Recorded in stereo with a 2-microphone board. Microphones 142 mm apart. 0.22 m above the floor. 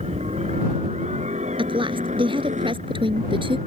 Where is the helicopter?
50° right (ahead or behind); by 3.7 s 60° right (ahead or behind).